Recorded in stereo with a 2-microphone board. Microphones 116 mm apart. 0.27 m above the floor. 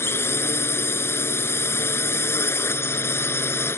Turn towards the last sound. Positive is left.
turn(degrees=20)  # may be behind; listen again after turning